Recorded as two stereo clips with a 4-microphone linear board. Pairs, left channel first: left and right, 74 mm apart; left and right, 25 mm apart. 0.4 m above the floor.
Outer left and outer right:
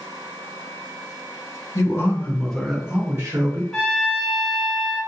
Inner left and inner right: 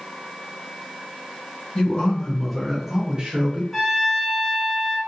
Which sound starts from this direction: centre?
A trumpet, at 3.7 s.